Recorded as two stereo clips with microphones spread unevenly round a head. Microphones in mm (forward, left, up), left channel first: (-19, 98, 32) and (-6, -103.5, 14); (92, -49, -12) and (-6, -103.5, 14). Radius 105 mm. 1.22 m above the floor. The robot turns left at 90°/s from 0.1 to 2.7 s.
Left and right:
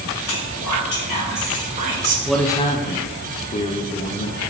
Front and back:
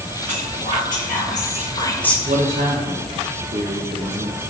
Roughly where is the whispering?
Behind left.